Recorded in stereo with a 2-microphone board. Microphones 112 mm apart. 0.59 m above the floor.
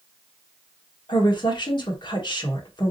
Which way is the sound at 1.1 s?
45° left (ahead or behind).